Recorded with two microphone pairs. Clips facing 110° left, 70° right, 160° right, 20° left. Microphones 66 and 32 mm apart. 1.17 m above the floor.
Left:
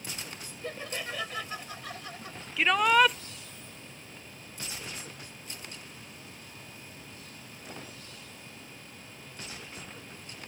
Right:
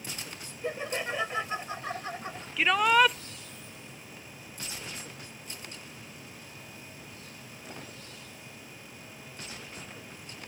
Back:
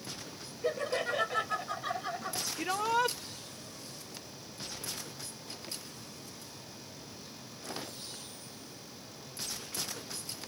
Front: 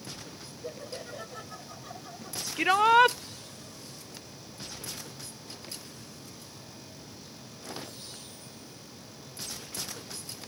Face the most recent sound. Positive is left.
turn(degrees=20)